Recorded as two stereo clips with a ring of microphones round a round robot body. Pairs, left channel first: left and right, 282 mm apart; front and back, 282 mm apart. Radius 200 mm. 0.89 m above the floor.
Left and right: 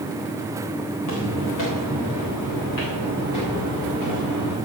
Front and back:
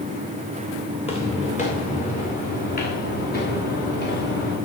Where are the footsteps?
70° left, 4 m; by 4.5 s 50° left, 5.5 m.